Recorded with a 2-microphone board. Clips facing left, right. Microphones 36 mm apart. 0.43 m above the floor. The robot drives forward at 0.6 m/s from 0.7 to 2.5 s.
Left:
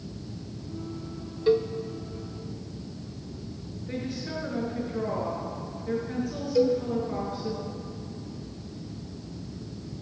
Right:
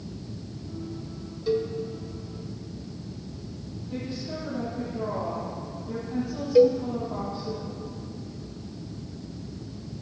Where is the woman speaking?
70° left (ahead or behind), 5.5 m.